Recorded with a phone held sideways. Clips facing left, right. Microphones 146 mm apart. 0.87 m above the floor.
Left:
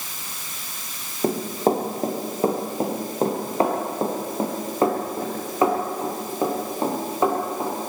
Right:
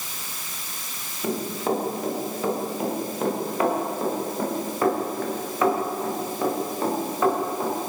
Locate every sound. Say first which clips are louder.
1.2 s running footsteps: left 4 dB; 40° left (ahead or behind), 4.5 m; by 7.7 s 20° left (ahead or behind), 8.5 m